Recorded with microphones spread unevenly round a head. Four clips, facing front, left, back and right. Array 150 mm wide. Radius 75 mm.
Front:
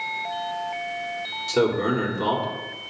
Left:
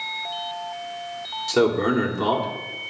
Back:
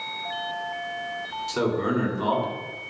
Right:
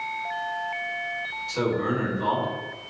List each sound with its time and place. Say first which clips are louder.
1.5 s a man speaking: left 6 dB, front 3 dB; 75° left, 2.5 m